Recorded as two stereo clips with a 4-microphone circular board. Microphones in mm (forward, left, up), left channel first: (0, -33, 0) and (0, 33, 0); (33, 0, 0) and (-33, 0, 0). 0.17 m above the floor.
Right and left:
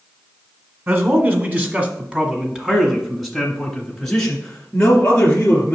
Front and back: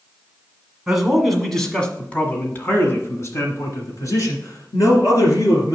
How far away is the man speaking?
About 1.5 m.